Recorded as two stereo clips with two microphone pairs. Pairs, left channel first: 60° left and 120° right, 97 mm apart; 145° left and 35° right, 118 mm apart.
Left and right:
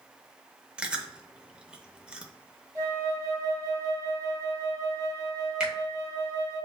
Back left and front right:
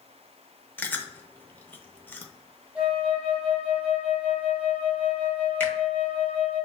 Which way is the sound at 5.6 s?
Straight behind.